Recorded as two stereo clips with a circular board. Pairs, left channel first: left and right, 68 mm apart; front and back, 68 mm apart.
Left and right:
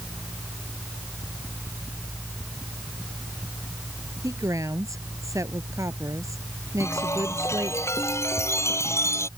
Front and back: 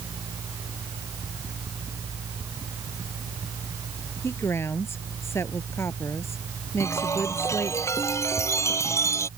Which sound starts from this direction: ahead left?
A chime, at 6.8 s.